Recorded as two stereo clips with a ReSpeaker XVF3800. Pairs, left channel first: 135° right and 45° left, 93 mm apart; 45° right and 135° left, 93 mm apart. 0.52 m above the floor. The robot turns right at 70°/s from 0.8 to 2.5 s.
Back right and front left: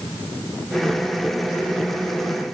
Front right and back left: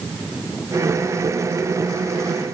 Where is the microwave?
No microwave in this recording.